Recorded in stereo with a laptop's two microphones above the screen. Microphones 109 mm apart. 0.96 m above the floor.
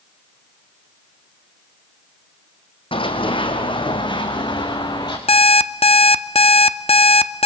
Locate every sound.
2.9 s running footsteps: 60° left (ahead or behind), 2.5 m; by 5.2 s 40° left (ahead or behind), 4 m
5.3 s an alarm clock: 70° left (ahead or behind), 0.8 m